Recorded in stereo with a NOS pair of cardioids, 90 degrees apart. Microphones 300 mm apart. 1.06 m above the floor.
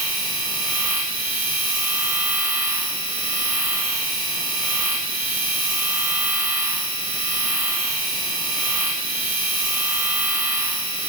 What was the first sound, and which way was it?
A machine running, 65° right.